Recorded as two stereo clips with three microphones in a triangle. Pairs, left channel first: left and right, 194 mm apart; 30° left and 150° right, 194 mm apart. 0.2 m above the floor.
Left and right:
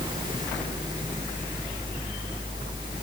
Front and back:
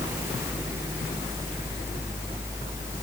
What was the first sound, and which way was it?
Only background noise.